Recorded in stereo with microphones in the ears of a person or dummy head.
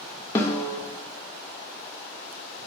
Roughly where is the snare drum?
Left.